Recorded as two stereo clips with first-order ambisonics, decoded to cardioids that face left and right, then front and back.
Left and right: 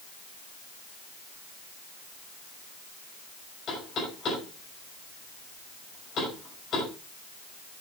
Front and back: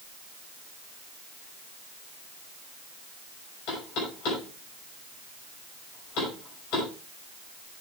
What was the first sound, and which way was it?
Knocking, 30° left.